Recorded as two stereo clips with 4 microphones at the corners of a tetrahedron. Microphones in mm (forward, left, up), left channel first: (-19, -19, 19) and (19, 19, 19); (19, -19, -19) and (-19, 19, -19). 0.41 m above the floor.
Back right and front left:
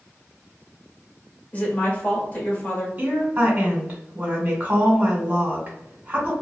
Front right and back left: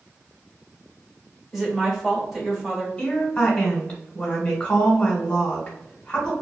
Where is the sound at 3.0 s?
15° left, 1.3 m.